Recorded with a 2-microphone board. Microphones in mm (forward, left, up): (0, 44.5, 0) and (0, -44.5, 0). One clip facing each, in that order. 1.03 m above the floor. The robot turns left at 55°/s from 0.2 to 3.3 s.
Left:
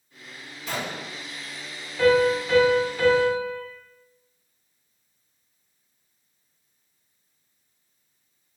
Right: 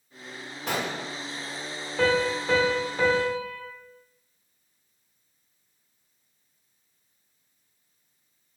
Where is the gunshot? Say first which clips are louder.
Right 2 dB; 60° right (ahead or behind), 0.7 m; by 1.1 s 85° right, 0.7 m.